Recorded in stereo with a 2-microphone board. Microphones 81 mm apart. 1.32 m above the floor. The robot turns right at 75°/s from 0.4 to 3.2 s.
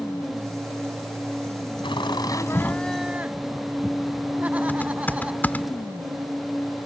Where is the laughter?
95° left; by 5.7 s 160° right.